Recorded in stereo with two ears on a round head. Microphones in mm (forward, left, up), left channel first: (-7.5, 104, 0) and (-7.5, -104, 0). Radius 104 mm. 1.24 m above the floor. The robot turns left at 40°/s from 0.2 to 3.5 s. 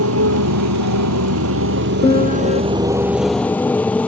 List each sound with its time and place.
0.0 s a motorcycle: 65° right (ahead or behind); by 4.1 s 5° left (ahead or behind)
2.0 s a piano: 20° left (ahead or behind); by 2.6 s 40° left (ahead or behind)